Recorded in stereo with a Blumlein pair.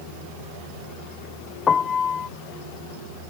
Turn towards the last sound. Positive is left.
turn(degrees=20)